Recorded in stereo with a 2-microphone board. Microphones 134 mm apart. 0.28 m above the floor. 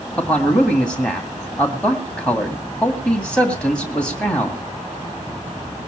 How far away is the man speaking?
About 2 m.